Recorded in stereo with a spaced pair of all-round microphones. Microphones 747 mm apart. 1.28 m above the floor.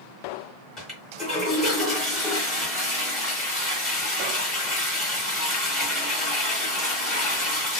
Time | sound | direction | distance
0.8 | a toilet flushing | centre (ahead or behind) | 1.6 m